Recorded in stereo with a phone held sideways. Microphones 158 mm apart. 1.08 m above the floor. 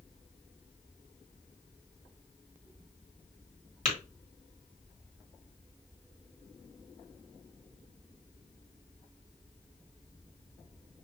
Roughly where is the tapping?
Left.